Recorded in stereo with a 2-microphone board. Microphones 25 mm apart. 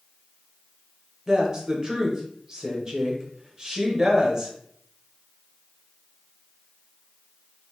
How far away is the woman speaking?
About 1.0 m.